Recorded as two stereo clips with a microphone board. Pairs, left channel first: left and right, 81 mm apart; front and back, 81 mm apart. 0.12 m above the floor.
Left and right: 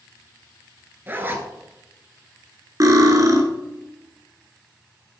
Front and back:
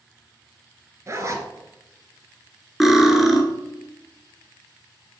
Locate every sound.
1.1 s a zipper: 145° right, 0.8 m
2.8 s cutlery clinking: 95° right, 1.1 m